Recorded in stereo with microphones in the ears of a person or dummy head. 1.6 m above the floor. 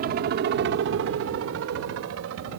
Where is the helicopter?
45° right (ahead or behind); by 2.6 s 70° right (ahead or behind).